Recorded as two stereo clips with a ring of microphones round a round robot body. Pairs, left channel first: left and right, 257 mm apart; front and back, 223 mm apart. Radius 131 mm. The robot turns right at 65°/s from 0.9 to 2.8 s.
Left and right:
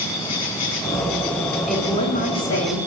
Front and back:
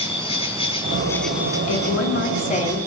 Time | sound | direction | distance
0.0 | an insect | 65° left | 5.5 m
1.7 | a woman speaking | straight ahead | 6.5 m